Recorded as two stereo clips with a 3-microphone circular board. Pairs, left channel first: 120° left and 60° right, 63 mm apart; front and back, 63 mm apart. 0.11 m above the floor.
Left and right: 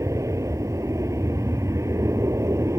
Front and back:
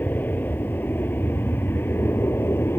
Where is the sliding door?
I don't hear a sliding door.